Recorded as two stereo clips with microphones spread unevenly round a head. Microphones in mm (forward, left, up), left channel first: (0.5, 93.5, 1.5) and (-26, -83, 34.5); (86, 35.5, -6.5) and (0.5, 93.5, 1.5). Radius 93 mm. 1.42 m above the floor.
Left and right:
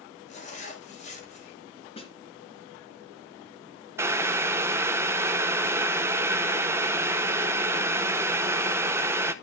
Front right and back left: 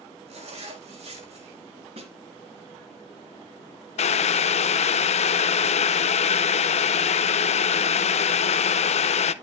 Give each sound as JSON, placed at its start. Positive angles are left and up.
{"t": 0.3, "sound": "a zipper", "azimuth_deg": 130, "distance_m": 3.5}
{"t": 2.0, "sound": "a snare drum", "azimuth_deg": 145, "distance_m": 3.0}
{"t": 4.0, "sound": "boiling", "azimuth_deg": -25, "distance_m": 0.6}